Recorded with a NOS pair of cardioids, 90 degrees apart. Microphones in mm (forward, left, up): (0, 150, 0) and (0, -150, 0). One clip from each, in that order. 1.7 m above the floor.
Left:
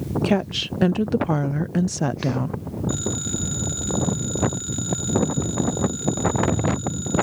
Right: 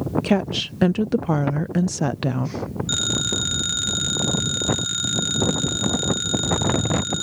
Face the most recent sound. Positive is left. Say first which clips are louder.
# right 6 dB
turn(degrees=-65)